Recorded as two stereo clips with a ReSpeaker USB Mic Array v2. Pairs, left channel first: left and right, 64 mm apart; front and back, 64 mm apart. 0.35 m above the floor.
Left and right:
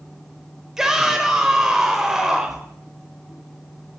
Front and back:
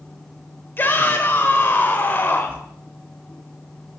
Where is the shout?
15° right, 0.9 m.